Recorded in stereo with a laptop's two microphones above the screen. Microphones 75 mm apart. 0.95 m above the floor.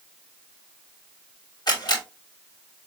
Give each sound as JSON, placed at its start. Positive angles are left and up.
{"t": 1.7, "sound": "a camera shutter", "side_deg": 70, "distance_m": 2.5}